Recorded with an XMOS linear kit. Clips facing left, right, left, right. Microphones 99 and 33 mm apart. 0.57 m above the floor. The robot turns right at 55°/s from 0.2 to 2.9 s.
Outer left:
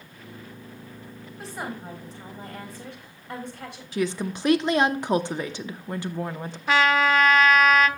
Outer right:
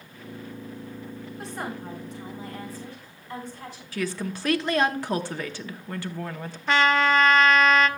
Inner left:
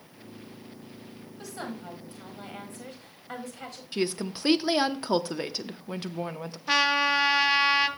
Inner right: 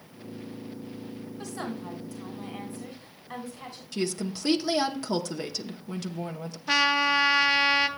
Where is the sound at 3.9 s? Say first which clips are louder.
Outer left 3 dB, inner left 1 dB; 20° left (ahead or behind), 0.7 m.